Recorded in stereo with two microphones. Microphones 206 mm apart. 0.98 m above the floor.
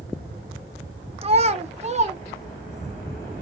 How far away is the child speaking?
About 0.6 m.